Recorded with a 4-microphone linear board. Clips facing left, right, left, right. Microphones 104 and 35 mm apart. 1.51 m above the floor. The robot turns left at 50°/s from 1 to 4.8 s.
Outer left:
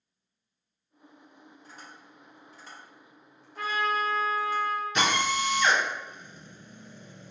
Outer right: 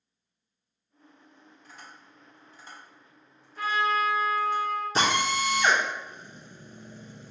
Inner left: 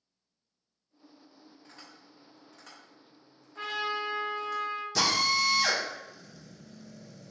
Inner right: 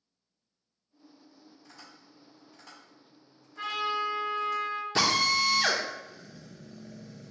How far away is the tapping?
About 1.9 m.